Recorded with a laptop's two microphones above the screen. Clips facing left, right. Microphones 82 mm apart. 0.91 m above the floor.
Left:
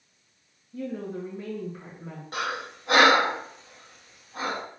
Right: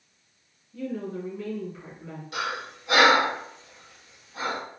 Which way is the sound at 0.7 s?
35° left (ahead or behind).